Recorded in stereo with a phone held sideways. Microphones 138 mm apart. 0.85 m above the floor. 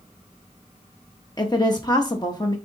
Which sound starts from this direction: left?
A woman speaking, at 1.4 s.